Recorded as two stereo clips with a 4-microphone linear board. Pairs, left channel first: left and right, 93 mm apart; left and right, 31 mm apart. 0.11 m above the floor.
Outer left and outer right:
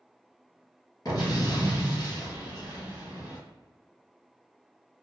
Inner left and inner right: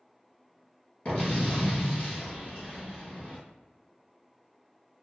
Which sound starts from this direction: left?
An explosion, at 1.1 s.